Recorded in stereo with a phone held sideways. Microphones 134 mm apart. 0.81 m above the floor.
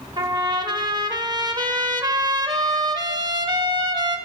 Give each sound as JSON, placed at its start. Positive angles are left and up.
{"t": 0.2, "sound": "a trumpet", "side_deg": -35, "distance_m": 0.6}